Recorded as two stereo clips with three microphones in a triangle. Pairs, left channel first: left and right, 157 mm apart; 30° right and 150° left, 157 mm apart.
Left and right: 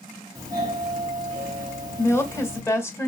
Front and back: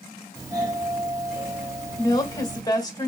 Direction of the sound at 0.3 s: 150° right.